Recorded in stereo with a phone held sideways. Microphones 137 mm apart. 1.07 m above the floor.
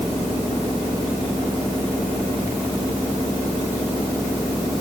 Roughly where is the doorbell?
I don't hear a doorbell.